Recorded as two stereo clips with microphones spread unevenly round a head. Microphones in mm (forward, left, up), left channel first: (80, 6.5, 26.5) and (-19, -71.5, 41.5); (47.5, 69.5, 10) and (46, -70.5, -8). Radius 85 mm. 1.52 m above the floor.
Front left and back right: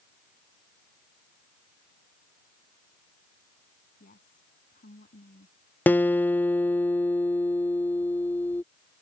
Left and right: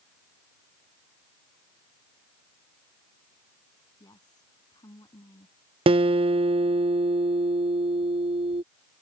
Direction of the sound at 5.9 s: 40° right.